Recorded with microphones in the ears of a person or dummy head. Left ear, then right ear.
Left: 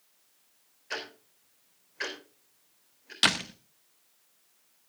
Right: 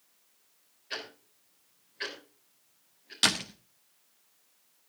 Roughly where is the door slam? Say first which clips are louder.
Left 2 dB; centre.